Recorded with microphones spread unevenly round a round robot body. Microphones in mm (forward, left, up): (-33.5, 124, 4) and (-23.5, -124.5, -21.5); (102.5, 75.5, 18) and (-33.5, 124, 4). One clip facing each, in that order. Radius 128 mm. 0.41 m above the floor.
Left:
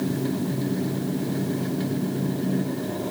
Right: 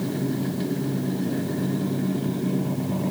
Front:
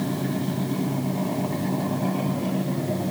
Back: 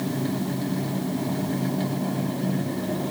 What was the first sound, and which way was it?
Only background noise.